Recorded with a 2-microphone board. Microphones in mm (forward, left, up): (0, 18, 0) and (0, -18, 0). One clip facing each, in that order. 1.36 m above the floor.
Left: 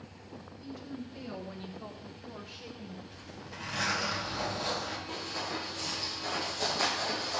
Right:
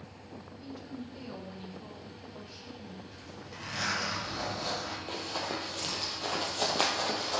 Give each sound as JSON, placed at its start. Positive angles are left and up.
{"t": 0.6, "sound": "a woman speaking", "side_deg": -5, "distance_m": 1.8}
{"t": 3.1, "sound": "a zipper", "side_deg": 5, "distance_m": 4.5}
{"t": 5.1, "sound": "running footsteps", "side_deg": -60, "distance_m": 2.5}